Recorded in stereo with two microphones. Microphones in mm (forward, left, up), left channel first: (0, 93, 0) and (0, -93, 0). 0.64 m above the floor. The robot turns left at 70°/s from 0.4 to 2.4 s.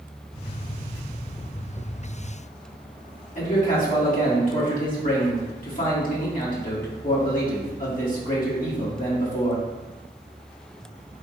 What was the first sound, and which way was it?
A man speaking, 45° left (ahead or behind).